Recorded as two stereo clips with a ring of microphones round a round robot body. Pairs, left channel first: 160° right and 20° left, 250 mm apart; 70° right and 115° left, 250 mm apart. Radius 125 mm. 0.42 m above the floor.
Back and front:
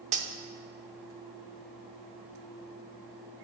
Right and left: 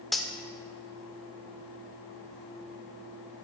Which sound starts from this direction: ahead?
Cutlery clinking, at 0.1 s.